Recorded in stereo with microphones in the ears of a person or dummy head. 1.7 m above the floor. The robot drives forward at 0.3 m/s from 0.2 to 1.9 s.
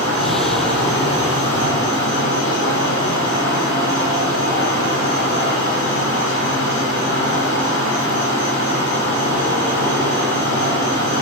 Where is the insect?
80° left, 1.8 m.